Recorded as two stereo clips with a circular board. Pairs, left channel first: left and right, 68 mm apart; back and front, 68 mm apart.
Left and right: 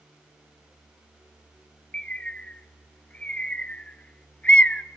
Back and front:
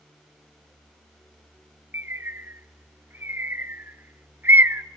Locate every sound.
1.9 s a bird: 30° left, 0.6 m